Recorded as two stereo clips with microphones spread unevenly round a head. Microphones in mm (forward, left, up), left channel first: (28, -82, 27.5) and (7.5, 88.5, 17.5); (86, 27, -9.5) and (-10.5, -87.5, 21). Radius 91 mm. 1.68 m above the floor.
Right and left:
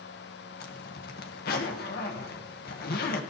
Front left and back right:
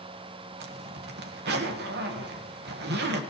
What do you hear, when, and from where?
0.6 s a zipper: 125° right, 1.6 m